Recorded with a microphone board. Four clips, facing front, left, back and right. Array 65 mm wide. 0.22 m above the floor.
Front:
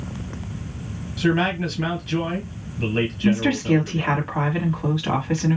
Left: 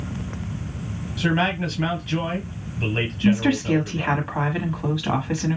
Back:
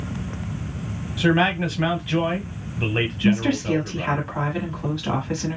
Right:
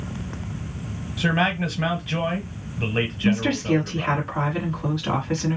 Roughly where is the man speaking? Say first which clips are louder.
Even, back 1 dB; behind right.